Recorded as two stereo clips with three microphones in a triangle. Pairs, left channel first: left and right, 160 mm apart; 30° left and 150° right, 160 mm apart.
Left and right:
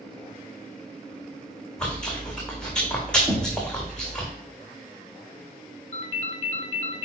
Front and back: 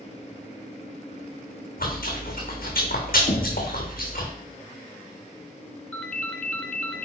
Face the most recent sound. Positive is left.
turn(degrees=115)